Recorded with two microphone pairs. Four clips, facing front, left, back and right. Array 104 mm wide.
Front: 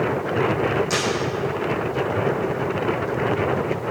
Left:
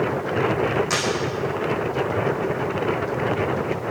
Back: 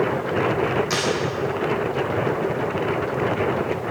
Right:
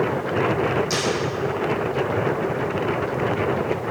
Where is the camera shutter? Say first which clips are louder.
Even, front 1 dB; 110° left, 4.5 m.